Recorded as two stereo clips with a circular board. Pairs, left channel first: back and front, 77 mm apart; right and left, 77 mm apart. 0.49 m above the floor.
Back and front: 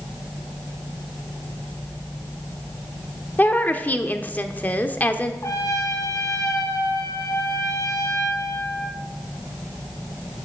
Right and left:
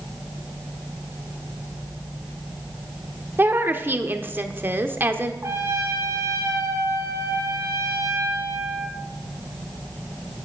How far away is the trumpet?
About 2 m.